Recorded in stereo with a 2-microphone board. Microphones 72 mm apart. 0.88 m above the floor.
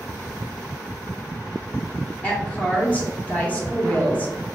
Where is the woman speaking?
20° left (ahead or behind), 0.8 m.